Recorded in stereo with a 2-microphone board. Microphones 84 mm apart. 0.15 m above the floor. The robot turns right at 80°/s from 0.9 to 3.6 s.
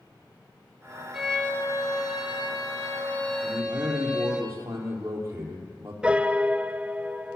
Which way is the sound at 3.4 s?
20° right (ahead or behind).